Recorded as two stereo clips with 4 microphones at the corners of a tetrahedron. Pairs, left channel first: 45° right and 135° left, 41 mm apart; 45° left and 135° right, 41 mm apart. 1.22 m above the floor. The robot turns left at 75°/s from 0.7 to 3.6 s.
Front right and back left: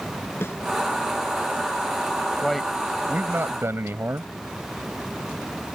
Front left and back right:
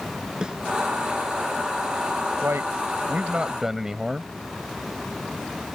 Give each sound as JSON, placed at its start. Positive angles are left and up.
{"t": 0.4, "sound": "a snare drum", "azimuth_deg": -65}
{"t": 2.4, "sound": "a man speaking", "azimuth_deg": -125}